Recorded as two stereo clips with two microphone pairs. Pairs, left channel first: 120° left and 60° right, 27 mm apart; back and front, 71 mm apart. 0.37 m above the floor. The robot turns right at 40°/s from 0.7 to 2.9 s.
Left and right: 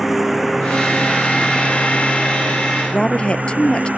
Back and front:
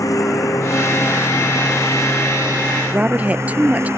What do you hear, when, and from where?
0.0 s a lawn mower: 140° right; by 4.0 s 50° right
2.9 s a woman speaking: 70° left